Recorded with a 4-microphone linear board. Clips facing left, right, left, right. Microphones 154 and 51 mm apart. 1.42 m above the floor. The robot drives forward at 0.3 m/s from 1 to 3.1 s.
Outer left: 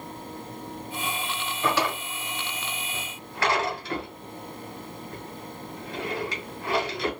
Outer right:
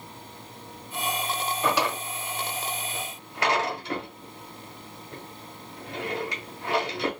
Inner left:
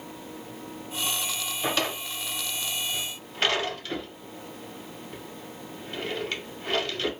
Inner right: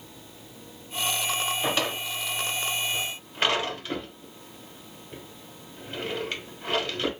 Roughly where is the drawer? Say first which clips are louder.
Outer left 1 dB, inner right 1 dB; centre.